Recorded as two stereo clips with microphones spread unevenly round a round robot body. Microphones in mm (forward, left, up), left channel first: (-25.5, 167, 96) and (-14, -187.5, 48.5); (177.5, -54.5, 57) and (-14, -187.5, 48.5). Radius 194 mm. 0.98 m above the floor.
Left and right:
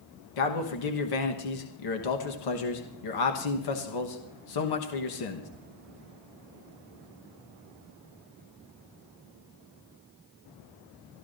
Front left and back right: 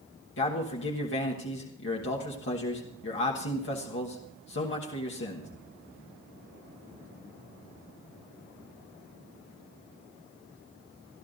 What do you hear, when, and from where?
0.4 s a man speaking: 75° left, 1.2 m